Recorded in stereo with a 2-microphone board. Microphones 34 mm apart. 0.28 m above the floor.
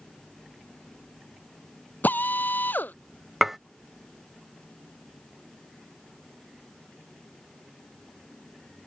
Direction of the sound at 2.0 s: 75° left (ahead or behind).